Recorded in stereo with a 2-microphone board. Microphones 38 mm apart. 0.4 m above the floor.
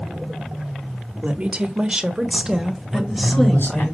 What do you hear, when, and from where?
1.2 s a woman speaking: 35° right (ahead or behind), 1.2 m; by 3.9 s centre (ahead or behind), 2 m
2.9 s a man speaking: 65° left (ahead or behind), 5.5 m